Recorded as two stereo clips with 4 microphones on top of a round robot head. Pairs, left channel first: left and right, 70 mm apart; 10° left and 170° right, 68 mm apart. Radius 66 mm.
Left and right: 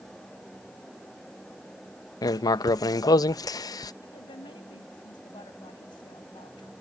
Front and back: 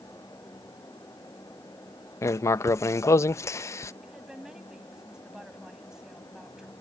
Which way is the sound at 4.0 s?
105° left.